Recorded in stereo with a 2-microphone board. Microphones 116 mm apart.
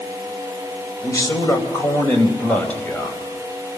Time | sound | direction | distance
1.0 | a man speaking | 30° left (ahead or behind) | 3.5 m